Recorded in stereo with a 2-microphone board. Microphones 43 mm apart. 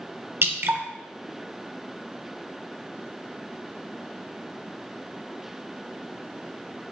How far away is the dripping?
About 0.6 m.